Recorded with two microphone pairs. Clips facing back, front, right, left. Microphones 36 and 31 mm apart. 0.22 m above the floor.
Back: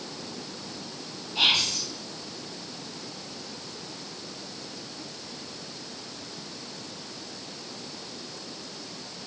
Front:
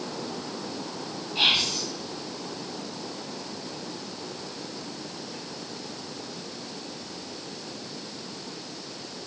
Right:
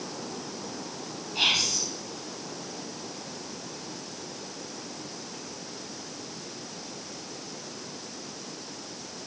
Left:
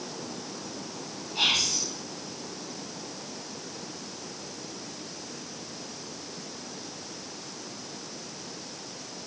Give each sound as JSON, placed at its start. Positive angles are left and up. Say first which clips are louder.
{"t": 1.4, "sound": "whispering", "louder": "even, even", "azimuth_deg": -40, "distance_m": 1.6}